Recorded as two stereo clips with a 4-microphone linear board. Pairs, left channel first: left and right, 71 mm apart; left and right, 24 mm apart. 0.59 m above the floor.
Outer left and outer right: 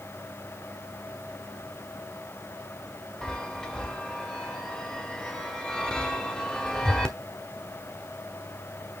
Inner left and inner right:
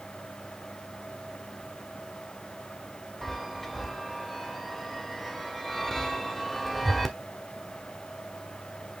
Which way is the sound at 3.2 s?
10° left (ahead or behind).